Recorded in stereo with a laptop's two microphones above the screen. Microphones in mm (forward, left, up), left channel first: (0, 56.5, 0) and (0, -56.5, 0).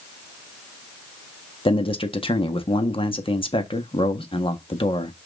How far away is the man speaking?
About 1.5 m.